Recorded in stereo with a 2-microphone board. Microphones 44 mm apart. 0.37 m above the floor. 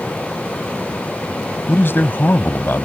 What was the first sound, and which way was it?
A man speaking, 55° left (ahead or behind).